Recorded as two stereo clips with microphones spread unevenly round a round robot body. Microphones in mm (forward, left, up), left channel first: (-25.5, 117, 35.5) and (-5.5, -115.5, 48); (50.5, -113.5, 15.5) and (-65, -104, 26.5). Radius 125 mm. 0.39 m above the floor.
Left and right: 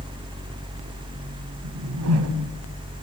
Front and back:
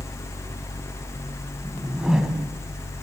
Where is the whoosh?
100° right, 1.5 m.